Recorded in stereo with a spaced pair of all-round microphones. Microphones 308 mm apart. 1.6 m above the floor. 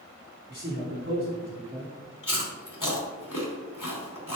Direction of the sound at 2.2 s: 85° left.